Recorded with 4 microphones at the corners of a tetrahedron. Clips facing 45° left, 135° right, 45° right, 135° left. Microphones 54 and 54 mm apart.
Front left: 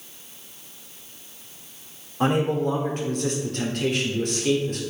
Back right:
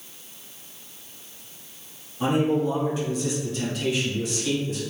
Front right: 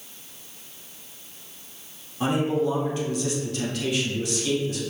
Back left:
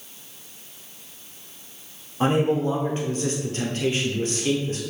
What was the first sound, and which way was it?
A man speaking, 80° left.